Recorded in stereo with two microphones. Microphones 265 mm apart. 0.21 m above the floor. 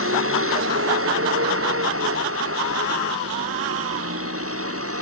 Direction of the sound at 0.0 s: 55° right (ahead or behind).